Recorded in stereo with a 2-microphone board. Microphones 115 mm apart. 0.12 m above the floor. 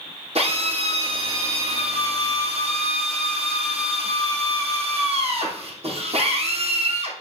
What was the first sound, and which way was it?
A drill, 65° right (ahead or behind).